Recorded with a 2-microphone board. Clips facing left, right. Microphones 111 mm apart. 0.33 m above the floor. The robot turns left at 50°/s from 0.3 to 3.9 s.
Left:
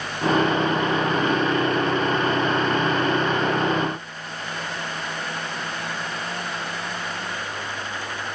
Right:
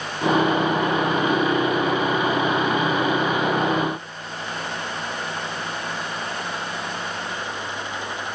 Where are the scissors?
No scissors in this recording.